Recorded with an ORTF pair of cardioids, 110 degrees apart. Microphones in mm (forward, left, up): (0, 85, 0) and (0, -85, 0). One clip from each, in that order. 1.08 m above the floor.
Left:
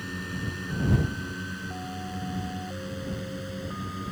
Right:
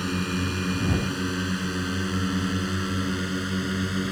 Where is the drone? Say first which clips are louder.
Right 6 dB; 60° right; by 4.1 s 65° right.